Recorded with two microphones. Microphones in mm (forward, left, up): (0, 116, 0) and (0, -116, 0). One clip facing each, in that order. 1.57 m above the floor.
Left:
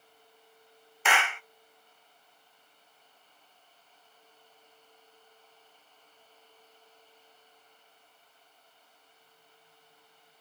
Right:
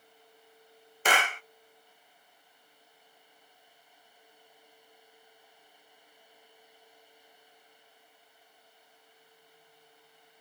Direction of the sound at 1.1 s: 40° right (ahead or behind).